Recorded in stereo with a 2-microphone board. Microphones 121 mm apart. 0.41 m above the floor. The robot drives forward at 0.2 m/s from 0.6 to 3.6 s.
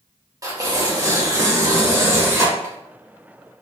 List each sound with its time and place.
0.4 s tearing paper: 30° right (ahead or behind), 0.8 m; by 2.7 s 20° right (ahead or behind), 1.0 m